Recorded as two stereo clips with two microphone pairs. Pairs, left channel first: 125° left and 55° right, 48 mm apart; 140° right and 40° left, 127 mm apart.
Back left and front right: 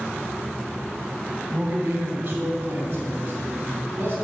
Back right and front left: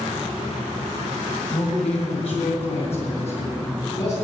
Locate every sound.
1.5 s a man speaking: 105° right, 1.9 m